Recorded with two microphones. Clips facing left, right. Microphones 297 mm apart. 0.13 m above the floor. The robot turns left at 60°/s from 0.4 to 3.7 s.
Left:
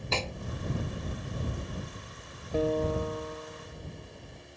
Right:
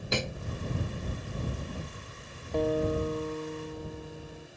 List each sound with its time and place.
0.1 s a snare drum: 15° right (ahead or behind)
2.5 s a guitar: 10° left; by 4.5 s 60° right